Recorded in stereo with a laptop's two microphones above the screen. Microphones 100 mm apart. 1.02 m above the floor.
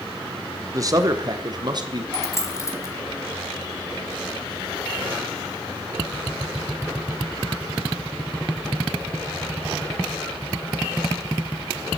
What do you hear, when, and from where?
0.7 s a man speaking: 35° right (ahead or behind), 0.8 m; by 2.0 s 45° right (ahead or behind), 1.2 m
2.1 s a dropped coin: 30° left (ahead or behind), 1.2 m